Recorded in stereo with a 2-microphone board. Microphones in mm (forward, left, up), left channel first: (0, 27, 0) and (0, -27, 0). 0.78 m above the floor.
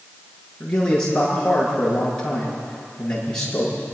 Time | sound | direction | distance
0.6 | a man speaking | 15° left (ahead or behind) | 9.5 m